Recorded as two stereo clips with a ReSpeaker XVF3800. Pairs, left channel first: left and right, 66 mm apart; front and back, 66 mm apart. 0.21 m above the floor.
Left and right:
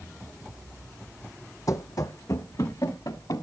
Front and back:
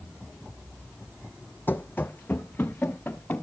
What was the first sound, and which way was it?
Running footsteps, 60° left.